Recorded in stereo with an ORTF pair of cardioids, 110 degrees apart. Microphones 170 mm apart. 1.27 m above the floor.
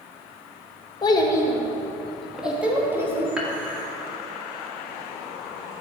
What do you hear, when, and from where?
1.0 s a child speaking: 25° left, 1.4 m; by 3.3 s 15° right, 2.0 m
3.4 s dishes clattering: 5° right, 2 m